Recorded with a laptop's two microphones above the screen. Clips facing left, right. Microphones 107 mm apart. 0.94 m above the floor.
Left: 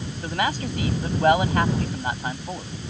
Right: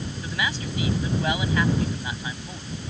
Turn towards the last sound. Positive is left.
turn(degrees=55)  # may be behind; listen again after turning